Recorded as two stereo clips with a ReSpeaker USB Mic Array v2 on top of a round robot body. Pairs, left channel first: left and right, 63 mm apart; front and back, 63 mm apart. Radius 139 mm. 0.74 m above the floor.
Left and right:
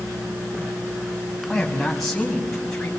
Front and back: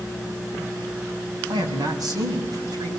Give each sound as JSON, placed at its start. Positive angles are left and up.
{"t": 1.5, "sound": "a man speaking", "azimuth_deg": 180, "distance_m": 6.0}